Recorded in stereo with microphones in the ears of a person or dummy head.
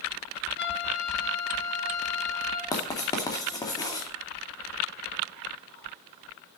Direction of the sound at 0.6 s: 60° left (ahead or behind).